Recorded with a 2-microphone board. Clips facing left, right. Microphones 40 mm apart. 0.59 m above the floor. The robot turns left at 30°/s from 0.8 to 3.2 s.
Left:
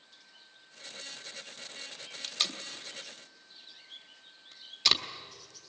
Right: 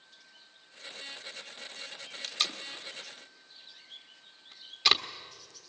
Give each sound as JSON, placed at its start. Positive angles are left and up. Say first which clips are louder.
{"t": 2.2, "sound": "tape being pulled", "louder": "right 1 dB", "side_deg": 0, "distance_m": 1.2}